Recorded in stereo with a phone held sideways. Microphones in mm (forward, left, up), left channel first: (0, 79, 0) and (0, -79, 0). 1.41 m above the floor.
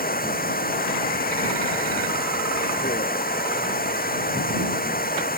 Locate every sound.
0.0 s running water: 75° left (ahead or behind)